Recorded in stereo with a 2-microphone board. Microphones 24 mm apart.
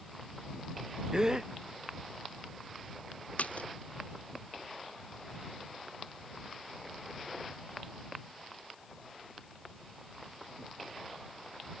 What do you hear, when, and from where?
1.1 s a gasp: 25° right (ahead or behind)
3.4 s a splash: 85° left